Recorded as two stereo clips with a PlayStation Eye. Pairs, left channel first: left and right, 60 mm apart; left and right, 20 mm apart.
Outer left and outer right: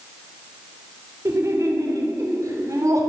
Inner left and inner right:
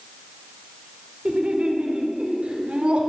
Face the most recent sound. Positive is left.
turn(degrees=-70)  # may be behind; listen again after turning